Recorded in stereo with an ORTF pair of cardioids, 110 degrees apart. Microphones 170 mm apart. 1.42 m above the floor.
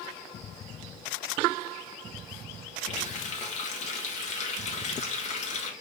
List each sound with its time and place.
2.9 s a running tap: 50° left, 1.3 m